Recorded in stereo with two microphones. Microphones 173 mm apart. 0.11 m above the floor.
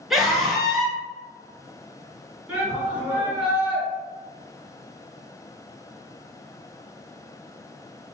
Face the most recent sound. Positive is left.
turn(degrees=-10)  # may be behind; listen again after turning